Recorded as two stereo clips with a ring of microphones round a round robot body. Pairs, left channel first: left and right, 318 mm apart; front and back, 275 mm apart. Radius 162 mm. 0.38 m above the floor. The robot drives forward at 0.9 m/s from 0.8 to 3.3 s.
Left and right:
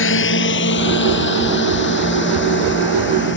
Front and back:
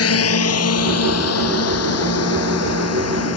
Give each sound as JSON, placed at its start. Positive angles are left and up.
{"t": 0.0, "sound": "a drone", "azimuth_deg": 35}